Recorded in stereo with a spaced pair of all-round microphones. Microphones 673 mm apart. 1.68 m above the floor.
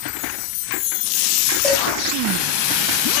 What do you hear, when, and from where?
1.6 s dishes clattering: 70° left (ahead or behind), 2.5 m